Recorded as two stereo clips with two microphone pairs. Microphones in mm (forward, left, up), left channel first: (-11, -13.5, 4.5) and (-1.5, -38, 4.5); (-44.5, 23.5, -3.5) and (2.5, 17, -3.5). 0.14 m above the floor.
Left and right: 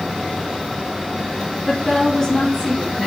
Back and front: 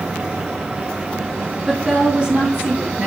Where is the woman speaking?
60° left, 2 m; by 3.1 s 40° left, 3 m.